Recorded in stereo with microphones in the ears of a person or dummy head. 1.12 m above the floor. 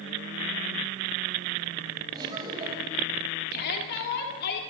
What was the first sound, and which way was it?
Laughter, 25° right (ahead or behind).